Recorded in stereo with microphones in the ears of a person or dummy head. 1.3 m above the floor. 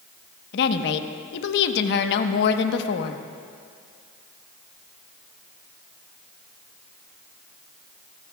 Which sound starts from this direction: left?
A woman speaking, at 0.5 s.